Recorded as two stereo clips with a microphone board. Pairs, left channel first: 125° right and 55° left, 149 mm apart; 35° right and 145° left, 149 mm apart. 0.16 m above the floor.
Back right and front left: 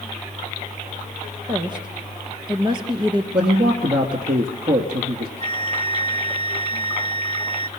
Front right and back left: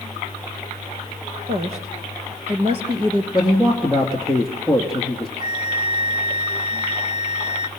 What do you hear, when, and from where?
1.5 s a woman speaking: 110° left, 3 m; by 3.2 s 100° left, 2 m
3.3 s a man speaking: 55° left, 2.5 m
5.4 s a flute: 90° left, 1.3 m